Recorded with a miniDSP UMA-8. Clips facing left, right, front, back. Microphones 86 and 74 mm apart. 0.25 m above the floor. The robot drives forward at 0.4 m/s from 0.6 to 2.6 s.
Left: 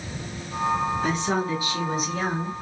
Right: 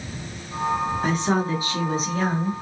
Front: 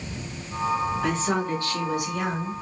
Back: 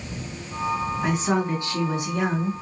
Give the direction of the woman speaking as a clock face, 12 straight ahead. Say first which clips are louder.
Right 2 dB, back 2 dB; 4 o'clock.